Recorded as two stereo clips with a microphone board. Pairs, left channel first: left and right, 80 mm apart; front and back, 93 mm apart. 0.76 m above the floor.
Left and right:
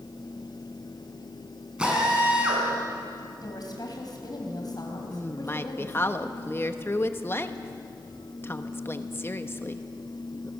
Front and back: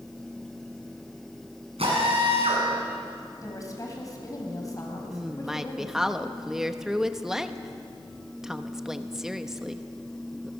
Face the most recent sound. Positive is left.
turn(degrees=100)